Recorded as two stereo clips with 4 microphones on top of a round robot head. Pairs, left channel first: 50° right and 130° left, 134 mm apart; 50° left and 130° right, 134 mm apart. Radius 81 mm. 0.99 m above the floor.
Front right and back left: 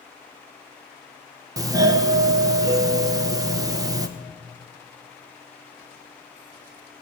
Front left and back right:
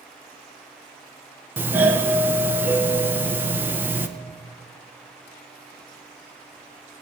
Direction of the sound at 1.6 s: 165° left.